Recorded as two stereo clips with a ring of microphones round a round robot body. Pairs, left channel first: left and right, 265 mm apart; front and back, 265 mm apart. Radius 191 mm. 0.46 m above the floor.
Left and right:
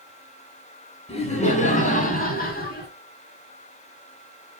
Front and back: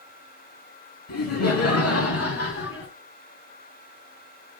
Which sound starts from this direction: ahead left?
Laughter, at 1.1 s.